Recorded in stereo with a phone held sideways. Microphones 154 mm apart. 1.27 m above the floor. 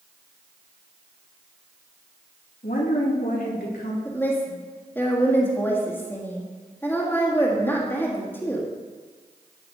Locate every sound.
2.6 s a woman speaking: 70° left (ahead or behind), 2.5 m; by 4.0 s 80° left, 3 m
4.0 s a woman speaking: 15° left (ahead or behind), 1.6 m